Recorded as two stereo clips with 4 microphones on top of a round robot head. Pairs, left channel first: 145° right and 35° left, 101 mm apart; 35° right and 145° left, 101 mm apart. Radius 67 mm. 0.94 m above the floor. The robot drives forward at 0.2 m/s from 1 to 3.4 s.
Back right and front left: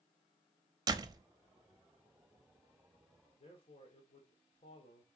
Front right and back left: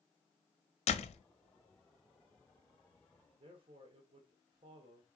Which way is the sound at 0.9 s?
20° right.